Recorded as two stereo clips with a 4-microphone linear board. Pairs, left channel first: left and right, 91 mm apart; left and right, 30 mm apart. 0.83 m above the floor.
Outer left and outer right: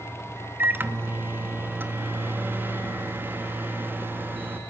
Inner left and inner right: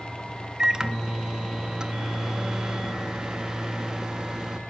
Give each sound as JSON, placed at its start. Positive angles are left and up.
{"t": 0.6, "sound": "a microwave", "side_deg": -20, "distance_m": 0.9}